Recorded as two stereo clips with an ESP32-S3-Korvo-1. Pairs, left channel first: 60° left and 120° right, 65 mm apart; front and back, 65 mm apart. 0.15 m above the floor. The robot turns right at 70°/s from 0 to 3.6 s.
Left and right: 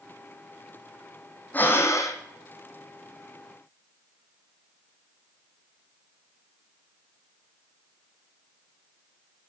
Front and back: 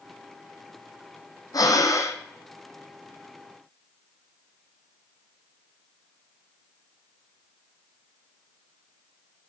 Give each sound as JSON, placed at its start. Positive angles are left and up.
{"t": 1.5, "sound": "breathing", "azimuth_deg": 0, "distance_m": 1.1}